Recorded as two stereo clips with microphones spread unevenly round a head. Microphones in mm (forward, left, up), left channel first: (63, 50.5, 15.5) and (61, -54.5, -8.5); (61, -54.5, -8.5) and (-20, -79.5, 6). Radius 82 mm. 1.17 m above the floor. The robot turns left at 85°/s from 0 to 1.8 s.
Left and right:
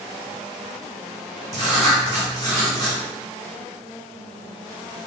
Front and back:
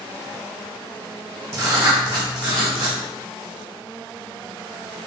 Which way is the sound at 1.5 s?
115° right.